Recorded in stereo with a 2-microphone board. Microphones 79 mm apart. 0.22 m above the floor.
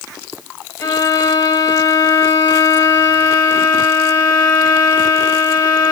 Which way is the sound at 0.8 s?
65° left (ahead or behind).